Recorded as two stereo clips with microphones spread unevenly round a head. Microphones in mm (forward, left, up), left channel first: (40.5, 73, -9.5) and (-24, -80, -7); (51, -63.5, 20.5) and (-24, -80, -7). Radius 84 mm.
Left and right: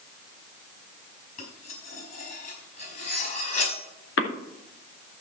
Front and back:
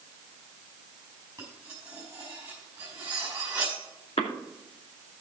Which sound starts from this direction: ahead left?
A cough, at 4.2 s.